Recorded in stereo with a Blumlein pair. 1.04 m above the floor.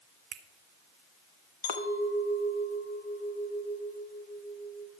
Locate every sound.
0.3 s a finger snap: 35° right, 0.7 m
1.6 s a clink: 50° left, 1.2 m